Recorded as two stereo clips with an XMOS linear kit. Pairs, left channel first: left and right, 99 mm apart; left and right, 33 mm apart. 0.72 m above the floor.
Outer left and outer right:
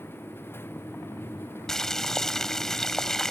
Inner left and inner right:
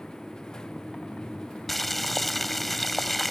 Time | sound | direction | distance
1.7 | boiling | 5° left (ahead or behind) | ?